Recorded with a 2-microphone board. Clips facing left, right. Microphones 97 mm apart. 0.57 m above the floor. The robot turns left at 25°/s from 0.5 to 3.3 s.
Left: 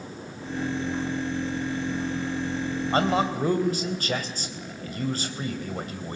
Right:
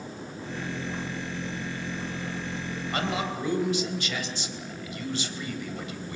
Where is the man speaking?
35° left (ahead or behind), 3.5 m; by 6.2 s 45° left (ahead or behind), 3.5 m.